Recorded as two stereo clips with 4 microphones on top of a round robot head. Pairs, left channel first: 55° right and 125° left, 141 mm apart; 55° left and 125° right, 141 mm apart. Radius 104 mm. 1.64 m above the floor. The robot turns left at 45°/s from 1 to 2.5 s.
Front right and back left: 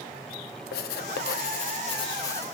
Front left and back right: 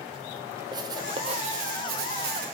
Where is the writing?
65° right, 0.7 m; by 2.5 s 130° right, 0.7 m.